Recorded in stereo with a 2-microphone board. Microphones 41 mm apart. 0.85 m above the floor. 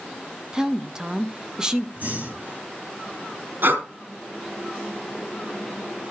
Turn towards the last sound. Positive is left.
turn(degrees=-65)  # may be behind; listen again after turning